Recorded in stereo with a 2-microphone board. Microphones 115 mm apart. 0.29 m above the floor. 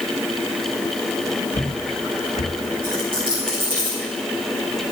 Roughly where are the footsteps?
Left.